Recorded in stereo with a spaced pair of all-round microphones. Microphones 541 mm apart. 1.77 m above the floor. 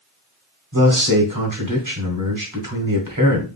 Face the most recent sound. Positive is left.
turn(degrees=-35)  # may be behind; listen again after turning